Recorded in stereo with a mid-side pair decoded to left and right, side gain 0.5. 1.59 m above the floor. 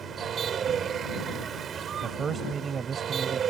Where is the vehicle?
55° right.